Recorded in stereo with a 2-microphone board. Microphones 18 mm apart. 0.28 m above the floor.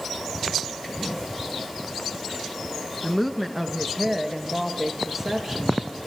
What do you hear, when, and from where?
3.0 s a woman speaking: 5° right (ahead or behind), 3 m; by 6.0 s 25° right (ahead or behind), 6.5 m